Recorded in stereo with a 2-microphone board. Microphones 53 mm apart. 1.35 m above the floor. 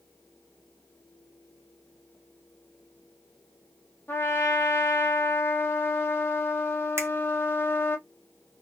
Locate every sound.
4.1 s a trumpet: 40° left (ahead or behind), 0.9 m
7.0 s a finger snap: 55° right (ahead or behind), 1.1 m